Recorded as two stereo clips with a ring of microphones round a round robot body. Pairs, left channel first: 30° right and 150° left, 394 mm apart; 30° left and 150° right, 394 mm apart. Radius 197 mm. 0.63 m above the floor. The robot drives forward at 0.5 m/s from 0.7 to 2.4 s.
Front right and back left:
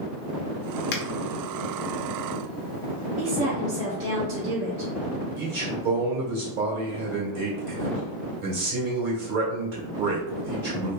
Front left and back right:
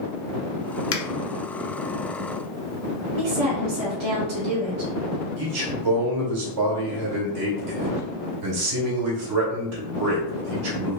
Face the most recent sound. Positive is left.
turn(degrees=170)